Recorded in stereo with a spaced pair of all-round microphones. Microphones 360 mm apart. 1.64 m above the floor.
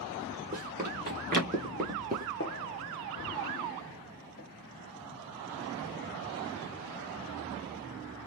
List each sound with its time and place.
0.5 s running footsteps: 25° right (ahead or behind), 2.5 m; by 2.3 s 20° right (ahead or behind), 1.7 m
2.4 s a gunshot: 35° left (ahead or behind), 1.4 m